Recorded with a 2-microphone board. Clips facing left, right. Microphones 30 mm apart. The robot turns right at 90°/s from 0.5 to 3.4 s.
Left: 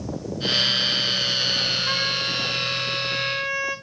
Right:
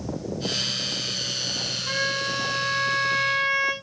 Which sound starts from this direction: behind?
A trumpet, at 1.9 s.